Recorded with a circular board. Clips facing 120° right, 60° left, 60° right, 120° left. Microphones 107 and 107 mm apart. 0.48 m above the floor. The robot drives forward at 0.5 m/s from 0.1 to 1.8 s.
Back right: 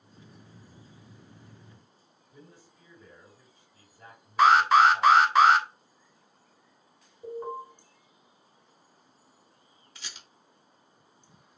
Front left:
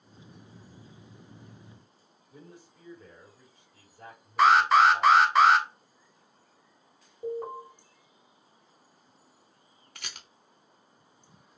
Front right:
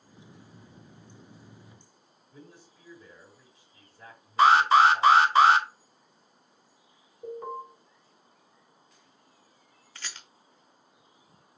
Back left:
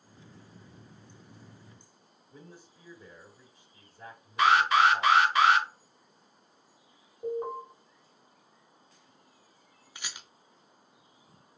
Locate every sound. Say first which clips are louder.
2.3 s a man speaking: front left 3 dB, even; 65° left, 3 m
4.4 s an alarm: back right 1 dB, front right 4 dB; 30° right, 0.6 m
7.2 s an alarm: front left 2 dB, back left 4 dB; 65° left, 2.5 m
9.9 s a rattle: front left 2 dB, even; 45° left, 0.7 m